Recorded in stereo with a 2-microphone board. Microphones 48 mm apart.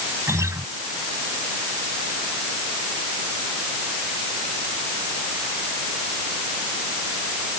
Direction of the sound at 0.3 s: 85° right.